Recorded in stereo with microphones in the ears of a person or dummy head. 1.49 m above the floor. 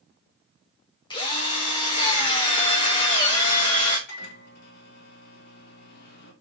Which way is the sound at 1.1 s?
20° left (ahead or behind).